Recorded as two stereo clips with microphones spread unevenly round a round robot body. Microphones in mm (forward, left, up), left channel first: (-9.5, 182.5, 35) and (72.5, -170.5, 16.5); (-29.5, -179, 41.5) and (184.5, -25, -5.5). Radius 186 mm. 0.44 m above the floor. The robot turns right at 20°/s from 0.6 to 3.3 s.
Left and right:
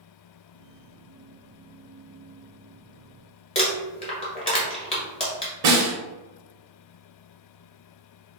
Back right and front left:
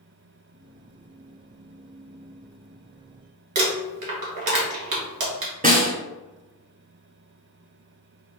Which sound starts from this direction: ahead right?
A snare drum, at 5.6 s.